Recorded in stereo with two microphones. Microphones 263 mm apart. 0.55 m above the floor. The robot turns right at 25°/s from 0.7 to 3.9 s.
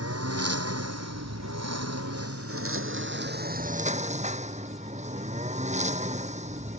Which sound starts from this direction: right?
A lawn mower, at 0.0 s.